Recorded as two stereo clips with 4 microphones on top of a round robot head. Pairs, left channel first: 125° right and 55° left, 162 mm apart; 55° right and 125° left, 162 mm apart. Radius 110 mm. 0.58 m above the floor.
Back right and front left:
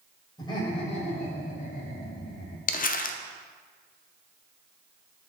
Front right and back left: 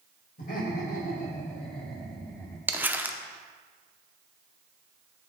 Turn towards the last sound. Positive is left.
turn(degrees=-155)